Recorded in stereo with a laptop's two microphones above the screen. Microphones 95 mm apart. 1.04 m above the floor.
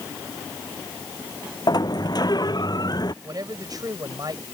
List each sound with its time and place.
1.7 s a sliding door: 50° left (ahead or behind)
3.2 s a man speaking: 45° right (ahead or behind)